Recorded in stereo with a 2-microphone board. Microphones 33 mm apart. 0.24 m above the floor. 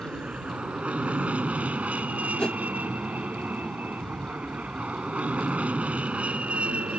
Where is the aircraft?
40° right (ahead or behind); by 7.0 s 45° right (ahead or behind).